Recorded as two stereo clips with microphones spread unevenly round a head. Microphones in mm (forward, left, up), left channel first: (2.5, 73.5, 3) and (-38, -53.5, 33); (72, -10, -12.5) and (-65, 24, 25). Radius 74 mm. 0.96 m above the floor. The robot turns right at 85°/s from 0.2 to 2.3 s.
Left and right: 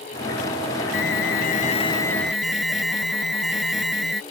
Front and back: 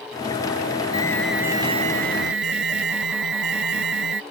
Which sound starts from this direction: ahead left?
An alarm, at 0.9 s.